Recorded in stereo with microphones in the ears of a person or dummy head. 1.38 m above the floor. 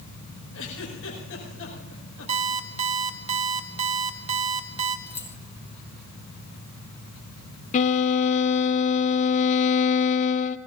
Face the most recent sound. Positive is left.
turn(degrees=45)  # may be behind; listen again after turning